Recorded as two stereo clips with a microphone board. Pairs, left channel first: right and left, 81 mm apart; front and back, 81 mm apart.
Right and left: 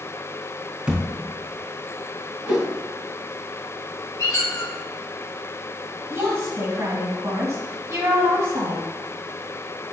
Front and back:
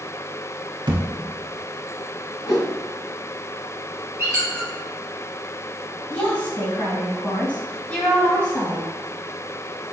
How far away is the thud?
About 0.6 m.